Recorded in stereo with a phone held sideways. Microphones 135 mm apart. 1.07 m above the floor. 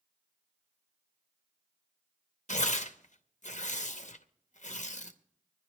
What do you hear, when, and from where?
2.5 s tearing paper: 60° left (ahead or behind), 0.7 m